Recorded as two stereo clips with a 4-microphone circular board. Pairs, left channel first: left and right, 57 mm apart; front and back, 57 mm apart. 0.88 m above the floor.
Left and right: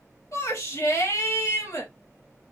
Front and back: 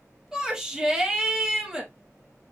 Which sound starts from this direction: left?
A shout, at 0.3 s.